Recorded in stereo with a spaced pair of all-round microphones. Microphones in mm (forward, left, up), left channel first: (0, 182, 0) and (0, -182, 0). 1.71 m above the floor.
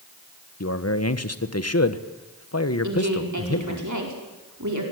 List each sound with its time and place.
0.6 s a man speaking: 40° left (ahead or behind), 1.4 m
2.8 s a woman speaking: 50° right (ahead or behind), 4.5 m